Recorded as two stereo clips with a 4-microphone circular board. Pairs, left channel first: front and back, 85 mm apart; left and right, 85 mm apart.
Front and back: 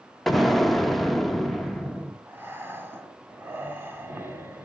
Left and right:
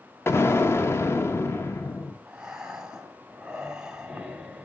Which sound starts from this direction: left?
An explosion, at 0.3 s.